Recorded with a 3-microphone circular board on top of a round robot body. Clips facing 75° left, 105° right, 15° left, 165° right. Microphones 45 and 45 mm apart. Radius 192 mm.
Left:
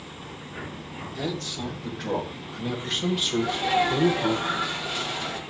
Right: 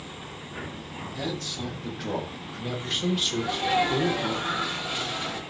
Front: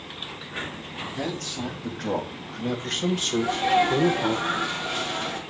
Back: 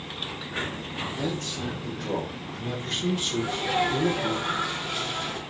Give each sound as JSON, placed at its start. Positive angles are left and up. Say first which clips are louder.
{"t": 1.1, "sound": "a man speaking", "louder": "left 2 dB, front 2 dB", "azimuth_deg": -25, "distance_m": 3.5}
{"t": 3.4, "sound": "a sneeze", "louder": "left 2 dB, front 6 dB", "azimuth_deg": -30, "distance_m": 3.5}